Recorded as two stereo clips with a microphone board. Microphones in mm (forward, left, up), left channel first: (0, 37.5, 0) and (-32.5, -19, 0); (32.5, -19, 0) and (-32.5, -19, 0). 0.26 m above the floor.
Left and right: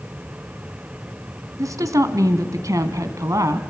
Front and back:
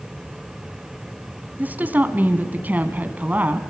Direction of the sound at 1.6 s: 120° right.